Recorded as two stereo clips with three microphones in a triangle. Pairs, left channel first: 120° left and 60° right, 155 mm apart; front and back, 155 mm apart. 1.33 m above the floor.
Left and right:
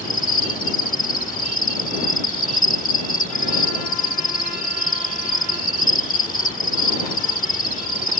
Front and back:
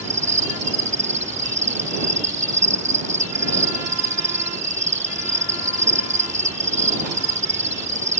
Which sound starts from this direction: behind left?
An insect, at 0.0 s.